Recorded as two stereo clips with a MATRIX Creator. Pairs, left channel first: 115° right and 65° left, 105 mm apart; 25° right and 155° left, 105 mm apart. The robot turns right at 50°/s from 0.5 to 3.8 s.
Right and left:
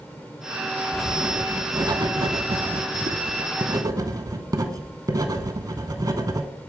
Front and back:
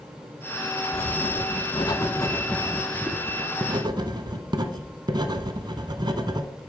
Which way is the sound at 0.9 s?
25° right.